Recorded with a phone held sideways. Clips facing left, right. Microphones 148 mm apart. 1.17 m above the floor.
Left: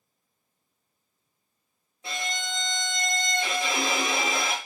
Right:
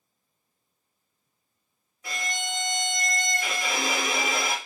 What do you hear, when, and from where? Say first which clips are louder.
2.0 s a violin: even; 25° left (ahead or behind), 0.7 m